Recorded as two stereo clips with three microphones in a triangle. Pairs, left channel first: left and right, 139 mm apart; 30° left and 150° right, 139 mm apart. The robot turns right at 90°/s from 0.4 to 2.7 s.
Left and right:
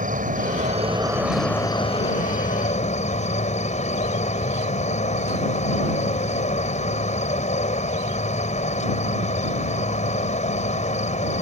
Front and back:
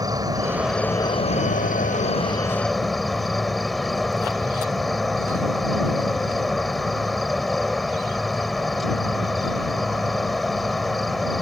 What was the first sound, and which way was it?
An insect, 90° right.